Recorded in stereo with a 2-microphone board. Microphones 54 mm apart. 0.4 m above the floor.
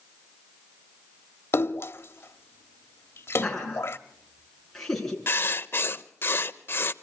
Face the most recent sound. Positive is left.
turn(degrees=45)  # may be behind; listen again after turning